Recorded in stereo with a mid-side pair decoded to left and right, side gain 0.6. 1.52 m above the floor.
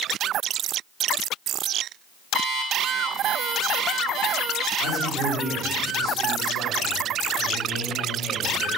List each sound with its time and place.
2.3 s an alarm clock: 55° right, 2.5 m
4.8 s a man speaking: 40° right, 6.5 m